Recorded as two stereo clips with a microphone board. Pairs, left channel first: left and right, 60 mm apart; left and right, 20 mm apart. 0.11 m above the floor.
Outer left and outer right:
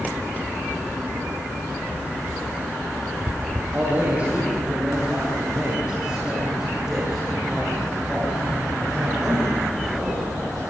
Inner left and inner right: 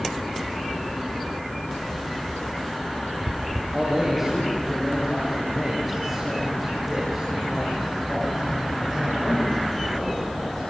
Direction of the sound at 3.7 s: 25° right (ahead or behind).